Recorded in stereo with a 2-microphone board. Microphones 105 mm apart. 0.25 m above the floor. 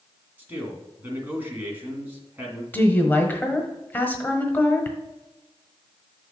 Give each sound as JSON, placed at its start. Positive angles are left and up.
{"t": 0.4, "sound": "a man speaking", "side_deg": -20, "distance_m": 2.0}
{"t": 2.7, "sound": "a woman speaking", "side_deg": 20, "distance_m": 1.1}